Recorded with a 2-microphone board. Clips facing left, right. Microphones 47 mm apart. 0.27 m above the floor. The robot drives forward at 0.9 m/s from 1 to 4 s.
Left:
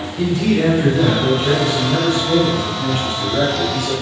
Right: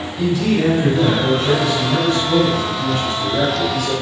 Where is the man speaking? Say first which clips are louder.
Left 1 dB; 35° left (ahead or behind), 2.5 m; by 3.9 s 20° left (ahead or behind), 4.5 m.